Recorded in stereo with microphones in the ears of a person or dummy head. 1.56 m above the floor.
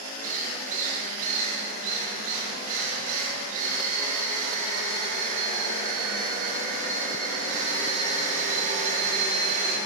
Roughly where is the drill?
Right.